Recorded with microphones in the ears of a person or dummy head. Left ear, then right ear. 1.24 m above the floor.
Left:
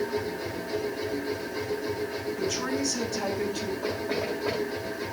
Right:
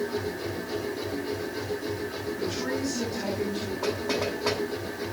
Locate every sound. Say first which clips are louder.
0.0 s a machine running: even; 5° left (ahead or behind), 2.5 m
2.4 s a woman speaking: left 1 dB; 40° left (ahead or behind), 8 m
3.8 s knocking: right 3 dB; 80° right, 8.5 m